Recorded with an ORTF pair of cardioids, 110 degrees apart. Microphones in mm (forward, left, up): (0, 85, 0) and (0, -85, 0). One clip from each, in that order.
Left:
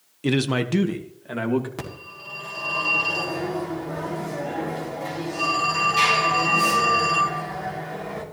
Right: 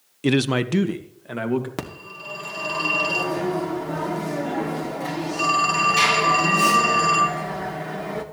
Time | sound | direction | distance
0.2 | a man speaking | 15° right | 0.6 m
1.8 | a phone ringing | 35° right | 2 m